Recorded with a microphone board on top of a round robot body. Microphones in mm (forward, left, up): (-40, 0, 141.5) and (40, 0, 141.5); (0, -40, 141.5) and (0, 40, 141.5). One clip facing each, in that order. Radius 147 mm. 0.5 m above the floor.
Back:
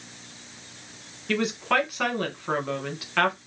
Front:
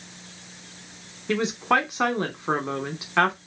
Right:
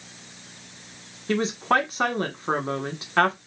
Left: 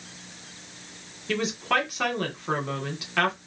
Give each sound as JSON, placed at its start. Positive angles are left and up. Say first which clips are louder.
{"t": 1.3, "sound": "a woman speaking", "louder": "front 2 dB, right 4 dB", "azimuth_deg": -55, "distance_m": 1.1}